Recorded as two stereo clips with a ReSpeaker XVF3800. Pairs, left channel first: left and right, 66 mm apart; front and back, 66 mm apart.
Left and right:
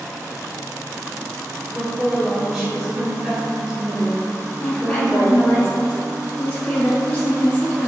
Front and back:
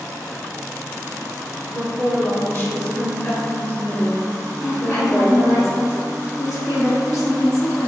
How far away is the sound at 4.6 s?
About 1.1 m.